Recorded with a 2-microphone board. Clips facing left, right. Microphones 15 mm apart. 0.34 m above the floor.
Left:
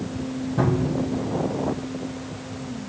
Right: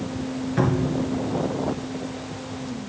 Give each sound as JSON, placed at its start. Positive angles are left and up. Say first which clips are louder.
{"t": 0.6, "sound": "a cupboard door", "louder": "even", "side_deg": -80, "distance_m": 2.5}